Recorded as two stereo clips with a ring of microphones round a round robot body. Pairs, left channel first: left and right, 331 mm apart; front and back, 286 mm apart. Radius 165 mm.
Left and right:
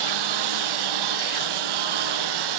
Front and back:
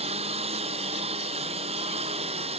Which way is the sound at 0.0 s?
105° right.